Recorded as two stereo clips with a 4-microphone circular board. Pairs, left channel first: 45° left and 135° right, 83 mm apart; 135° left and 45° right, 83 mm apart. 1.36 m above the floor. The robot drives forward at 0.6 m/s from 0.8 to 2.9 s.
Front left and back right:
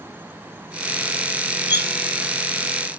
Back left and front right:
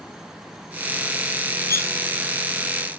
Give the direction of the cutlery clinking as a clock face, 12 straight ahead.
6 o'clock.